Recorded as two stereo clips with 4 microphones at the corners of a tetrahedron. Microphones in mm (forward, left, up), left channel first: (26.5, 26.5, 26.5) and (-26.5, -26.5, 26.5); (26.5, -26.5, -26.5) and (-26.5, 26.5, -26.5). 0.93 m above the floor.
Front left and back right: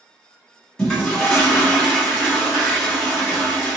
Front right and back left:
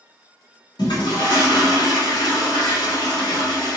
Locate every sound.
0.8 s a toilet flushing: 35° right, 1.1 m